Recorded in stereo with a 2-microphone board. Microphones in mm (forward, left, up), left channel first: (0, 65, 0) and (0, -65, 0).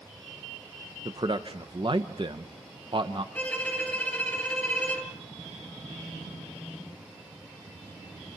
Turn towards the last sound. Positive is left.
turn(degrees=10)  # may be behind; listen again after turning